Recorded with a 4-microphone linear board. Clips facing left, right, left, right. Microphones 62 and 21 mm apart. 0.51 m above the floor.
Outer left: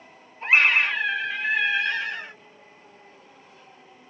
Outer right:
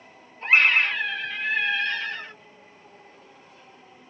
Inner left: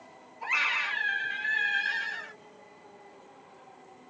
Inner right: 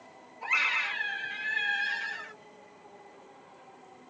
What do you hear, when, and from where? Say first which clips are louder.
0.4 s a scream: even, even; 10° left (ahead or behind), 1.2 m